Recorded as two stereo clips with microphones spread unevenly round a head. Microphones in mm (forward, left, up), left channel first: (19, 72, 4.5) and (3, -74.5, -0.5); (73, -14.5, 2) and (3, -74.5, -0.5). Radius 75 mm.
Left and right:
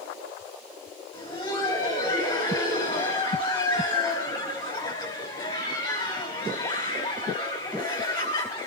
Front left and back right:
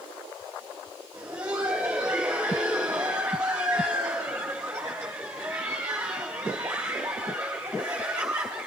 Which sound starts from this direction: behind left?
Laughter, at 1.1 s.